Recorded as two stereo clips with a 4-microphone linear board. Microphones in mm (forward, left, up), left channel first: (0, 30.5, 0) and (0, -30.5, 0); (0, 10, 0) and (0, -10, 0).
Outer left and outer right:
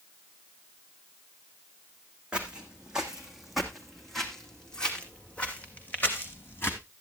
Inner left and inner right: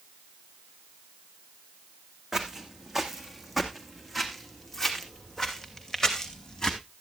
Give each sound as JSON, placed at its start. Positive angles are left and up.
{"t": 2.3, "sound": "footsteps", "side_deg": -15, "distance_m": 2.5}